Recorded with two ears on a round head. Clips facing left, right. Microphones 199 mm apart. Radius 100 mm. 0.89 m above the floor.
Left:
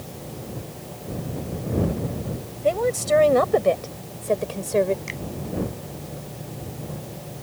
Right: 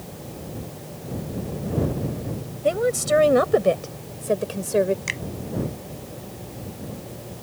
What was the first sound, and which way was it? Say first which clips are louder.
A woman speaking: even; 15° right (ahead or behind).